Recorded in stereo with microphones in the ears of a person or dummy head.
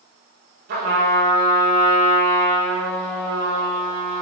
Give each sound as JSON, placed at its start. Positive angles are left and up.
{"t": 0.7, "sound": "a trumpet", "side_deg": -45, "distance_m": 6.0}